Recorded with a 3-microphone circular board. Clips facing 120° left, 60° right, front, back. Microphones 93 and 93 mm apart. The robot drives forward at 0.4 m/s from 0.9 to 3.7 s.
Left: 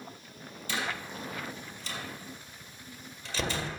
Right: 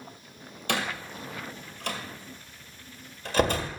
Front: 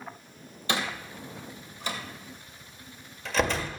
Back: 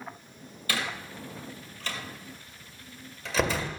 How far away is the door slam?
About 2 m.